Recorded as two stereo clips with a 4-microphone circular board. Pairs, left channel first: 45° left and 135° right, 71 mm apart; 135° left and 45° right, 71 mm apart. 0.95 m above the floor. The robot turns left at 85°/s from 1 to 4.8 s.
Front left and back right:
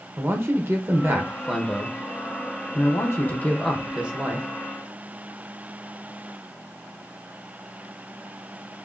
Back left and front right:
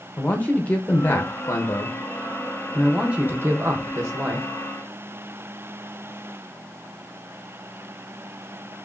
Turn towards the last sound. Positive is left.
turn(degrees=-130)